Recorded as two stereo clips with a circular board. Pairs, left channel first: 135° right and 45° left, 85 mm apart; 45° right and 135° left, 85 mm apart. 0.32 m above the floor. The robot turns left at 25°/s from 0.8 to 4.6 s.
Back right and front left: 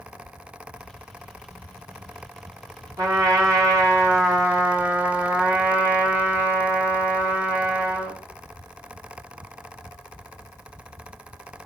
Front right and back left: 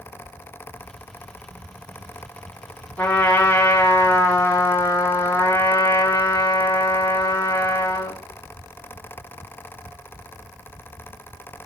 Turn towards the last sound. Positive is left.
turn(degrees=-10)